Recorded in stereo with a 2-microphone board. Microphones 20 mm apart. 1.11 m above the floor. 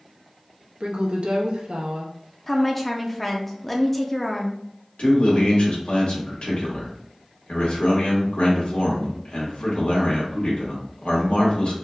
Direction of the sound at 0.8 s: 75° right (ahead or behind).